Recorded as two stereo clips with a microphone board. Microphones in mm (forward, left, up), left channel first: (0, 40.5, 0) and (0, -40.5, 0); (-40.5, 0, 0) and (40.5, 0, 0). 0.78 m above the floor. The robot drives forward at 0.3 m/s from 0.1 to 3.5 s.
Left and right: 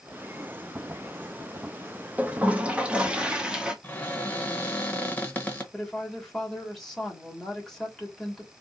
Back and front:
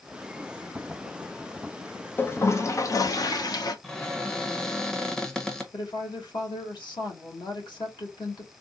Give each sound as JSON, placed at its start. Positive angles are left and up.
{"t": 2.2, "sound": "a toilet flushing", "azimuth_deg": -145, "distance_m": 0.5}
{"t": 3.8, "sound": "a cupboard door", "azimuth_deg": 115, "distance_m": 0.8}
{"t": 5.7, "sound": "a woman speaking", "azimuth_deg": 175, "distance_m": 1.6}